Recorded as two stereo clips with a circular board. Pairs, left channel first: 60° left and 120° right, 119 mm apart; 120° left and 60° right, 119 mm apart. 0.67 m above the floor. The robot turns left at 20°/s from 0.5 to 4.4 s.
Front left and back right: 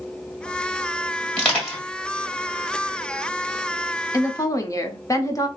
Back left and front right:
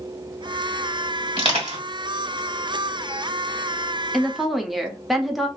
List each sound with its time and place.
1.4 s crushing: 15° right, 1.5 m; by 1.8 s 25° right, 1.5 m
4.1 s a woman speaking: 30° left, 0.6 m; by 5.5 s 25° left, 0.6 m